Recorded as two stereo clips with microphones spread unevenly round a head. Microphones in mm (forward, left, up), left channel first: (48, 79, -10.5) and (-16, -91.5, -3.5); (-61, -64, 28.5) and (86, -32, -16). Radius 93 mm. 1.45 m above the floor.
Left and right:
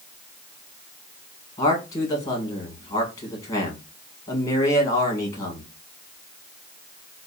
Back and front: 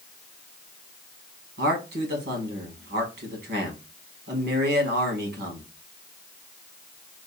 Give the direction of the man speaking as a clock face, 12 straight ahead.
12 o'clock.